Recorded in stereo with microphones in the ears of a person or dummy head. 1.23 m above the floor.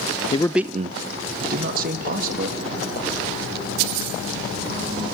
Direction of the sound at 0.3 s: 25° left (ahead or behind).